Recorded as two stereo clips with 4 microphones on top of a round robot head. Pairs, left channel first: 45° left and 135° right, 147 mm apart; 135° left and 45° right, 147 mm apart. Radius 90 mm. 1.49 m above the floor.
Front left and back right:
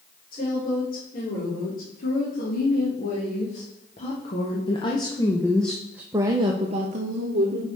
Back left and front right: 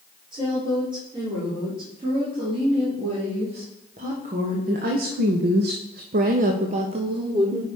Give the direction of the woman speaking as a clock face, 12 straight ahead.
11 o'clock.